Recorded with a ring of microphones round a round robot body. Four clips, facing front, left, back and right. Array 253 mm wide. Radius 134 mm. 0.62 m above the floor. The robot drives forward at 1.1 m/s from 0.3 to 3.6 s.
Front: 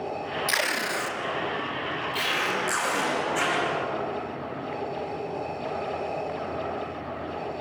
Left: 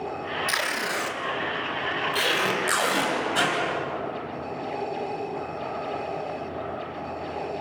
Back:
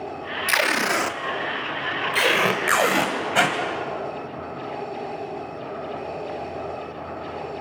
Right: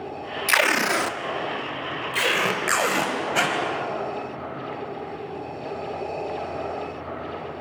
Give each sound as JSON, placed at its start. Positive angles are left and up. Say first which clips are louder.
{"t": 0.5, "sound": "tape being pulled", "louder": "right 11 dB, back 9 dB", "azimuth_deg": -110, "distance_m": 1.0}